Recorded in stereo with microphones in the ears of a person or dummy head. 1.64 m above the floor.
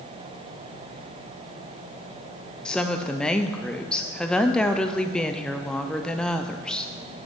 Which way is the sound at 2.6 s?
Centre (ahead or behind).